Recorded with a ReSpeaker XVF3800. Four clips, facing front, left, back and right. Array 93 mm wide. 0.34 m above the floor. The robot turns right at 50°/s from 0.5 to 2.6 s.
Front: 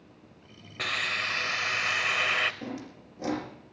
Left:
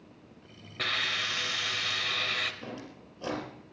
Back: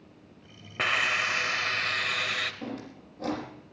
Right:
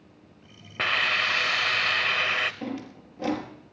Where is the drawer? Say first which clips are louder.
Right 7 dB, even; 75° right, 4 m.